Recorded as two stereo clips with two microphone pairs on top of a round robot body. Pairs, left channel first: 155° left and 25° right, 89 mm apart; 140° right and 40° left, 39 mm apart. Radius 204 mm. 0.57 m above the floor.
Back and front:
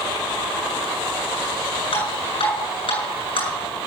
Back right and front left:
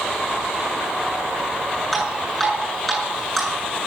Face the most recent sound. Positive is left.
turn(degrees=135)